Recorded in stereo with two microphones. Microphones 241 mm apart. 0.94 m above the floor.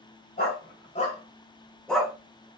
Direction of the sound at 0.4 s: 40° left (ahead or behind).